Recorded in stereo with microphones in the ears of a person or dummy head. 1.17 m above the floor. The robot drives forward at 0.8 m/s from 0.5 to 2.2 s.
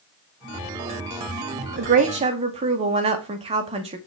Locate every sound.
1.8 s a woman speaking: 50° right (ahead or behind), 0.5 m; by 4.0 s 30° right (ahead or behind), 0.8 m